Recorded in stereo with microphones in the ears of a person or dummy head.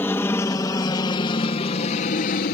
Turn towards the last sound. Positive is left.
turn(degrees=45)  # may be behind; listen again after turning